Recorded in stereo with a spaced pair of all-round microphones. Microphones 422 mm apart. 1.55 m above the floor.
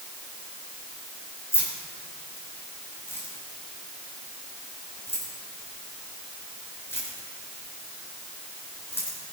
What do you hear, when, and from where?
1.5 s keys jangling: 5° left (ahead or behind), 4 m